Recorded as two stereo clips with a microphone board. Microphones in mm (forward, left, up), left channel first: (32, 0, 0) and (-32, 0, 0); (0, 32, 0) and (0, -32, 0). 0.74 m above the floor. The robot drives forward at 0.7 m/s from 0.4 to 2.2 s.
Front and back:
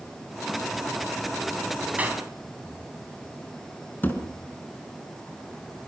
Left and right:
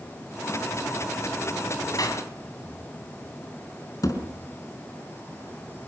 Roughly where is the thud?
Ahead left.